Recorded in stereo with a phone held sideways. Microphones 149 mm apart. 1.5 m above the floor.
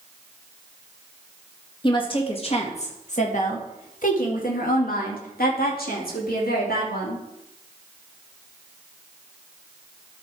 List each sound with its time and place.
1.8 s a woman speaking: 35° left (ahead or behind), 2 m; by 7.2 s 85° left, 3 m